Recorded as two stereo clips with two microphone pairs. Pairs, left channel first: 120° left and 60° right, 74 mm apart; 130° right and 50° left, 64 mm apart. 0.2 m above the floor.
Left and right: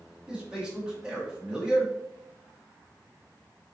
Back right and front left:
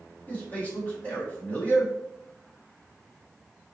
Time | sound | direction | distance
0.3 | a man speaking | 120° right | 1.2 m